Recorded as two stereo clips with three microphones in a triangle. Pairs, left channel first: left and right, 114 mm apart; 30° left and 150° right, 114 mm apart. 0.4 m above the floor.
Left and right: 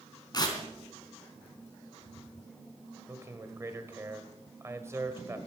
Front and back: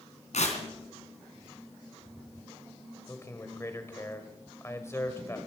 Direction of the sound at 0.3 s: 35° left.